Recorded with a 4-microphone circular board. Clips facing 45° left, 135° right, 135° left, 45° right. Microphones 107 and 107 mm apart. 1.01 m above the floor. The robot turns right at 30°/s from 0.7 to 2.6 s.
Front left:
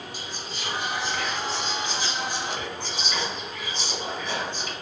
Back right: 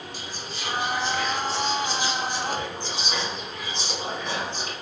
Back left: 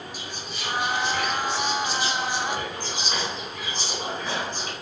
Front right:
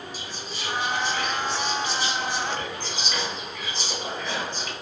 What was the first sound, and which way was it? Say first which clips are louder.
Whispering: even, even; 125° left.